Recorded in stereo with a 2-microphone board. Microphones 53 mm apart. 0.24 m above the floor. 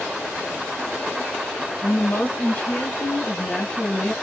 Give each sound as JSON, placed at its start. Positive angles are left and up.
{"t": 1.8, "sound": "a woman speaking", "side_deg": 40, "distance_m": 1.6}